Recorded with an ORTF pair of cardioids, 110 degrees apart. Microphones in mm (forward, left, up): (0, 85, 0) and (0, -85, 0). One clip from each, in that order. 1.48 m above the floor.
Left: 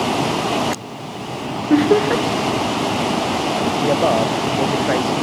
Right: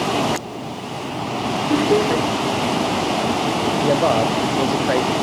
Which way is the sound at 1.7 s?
25° left.